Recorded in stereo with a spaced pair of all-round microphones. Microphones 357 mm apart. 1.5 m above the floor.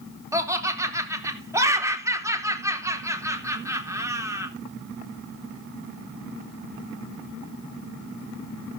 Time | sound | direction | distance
0.3 | laughter | 10° right (ahead or behind) | 3.5 m